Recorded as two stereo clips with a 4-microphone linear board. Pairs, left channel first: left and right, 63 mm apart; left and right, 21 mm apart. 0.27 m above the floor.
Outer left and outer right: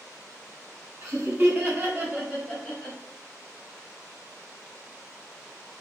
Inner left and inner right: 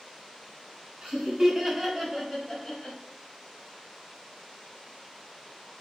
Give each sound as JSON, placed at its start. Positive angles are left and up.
{"t": 1.0, "sound": "laughter", "side_deg": -40, "distance_m": 1.8}